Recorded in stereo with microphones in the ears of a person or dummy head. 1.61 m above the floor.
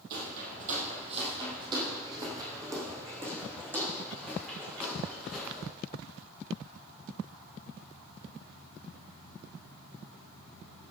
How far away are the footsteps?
About 3 m.